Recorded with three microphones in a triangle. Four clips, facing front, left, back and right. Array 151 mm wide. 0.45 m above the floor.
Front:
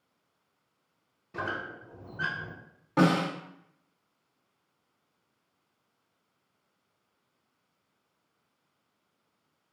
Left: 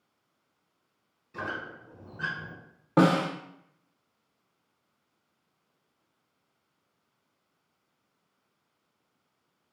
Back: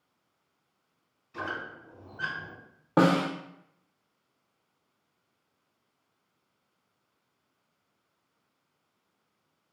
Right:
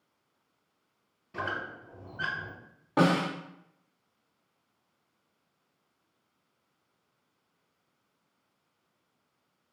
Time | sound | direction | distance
1.3 | a squeak | 20° right | 0.8 m
3.0 | a snare drum | 145° left | 0.5 m